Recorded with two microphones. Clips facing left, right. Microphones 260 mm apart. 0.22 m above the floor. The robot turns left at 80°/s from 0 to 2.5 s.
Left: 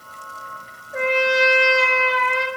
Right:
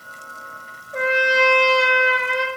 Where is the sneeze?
No sneeze in this recording.